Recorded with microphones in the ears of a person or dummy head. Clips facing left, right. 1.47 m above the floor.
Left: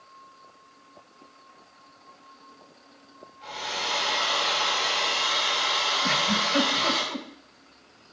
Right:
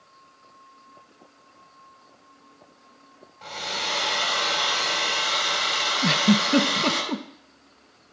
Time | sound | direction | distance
3.4 | a hair dryer | 65° right (ahead or behind) | 5 m
6.0 | a giggle | 55° right (ahead or behind) | 1.0 m